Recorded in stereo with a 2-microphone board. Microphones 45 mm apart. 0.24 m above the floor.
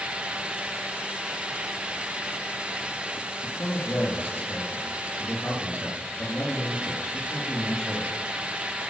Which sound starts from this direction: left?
A man speaking, at 3.4 s.